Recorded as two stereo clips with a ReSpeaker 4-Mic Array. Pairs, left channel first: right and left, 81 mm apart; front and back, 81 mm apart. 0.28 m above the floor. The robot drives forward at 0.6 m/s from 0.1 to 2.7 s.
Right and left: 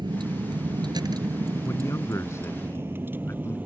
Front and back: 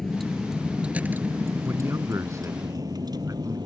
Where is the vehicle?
85° left; by 3.7 s 160° left.